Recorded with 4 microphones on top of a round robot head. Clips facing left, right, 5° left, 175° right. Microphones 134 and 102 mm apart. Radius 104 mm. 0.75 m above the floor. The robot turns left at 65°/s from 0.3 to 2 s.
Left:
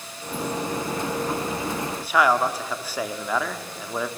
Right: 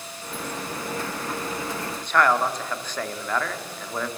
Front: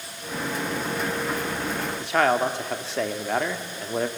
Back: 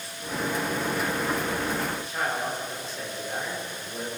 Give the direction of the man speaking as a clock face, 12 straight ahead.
12 o'clock.